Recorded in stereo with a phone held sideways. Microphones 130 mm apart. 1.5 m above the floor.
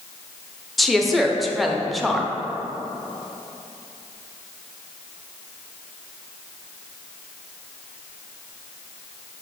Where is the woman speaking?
Centre (ahead or behind), 0.6 m.